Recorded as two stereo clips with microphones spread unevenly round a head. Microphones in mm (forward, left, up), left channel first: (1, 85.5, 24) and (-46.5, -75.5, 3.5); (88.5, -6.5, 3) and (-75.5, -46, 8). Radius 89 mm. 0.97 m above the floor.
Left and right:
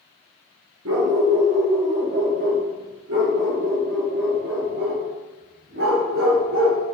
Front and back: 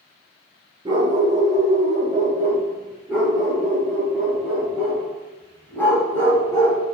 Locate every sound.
0.8 s a dog barking: 100° right, 4.5 m; by 6.8 s 60° right, 5 m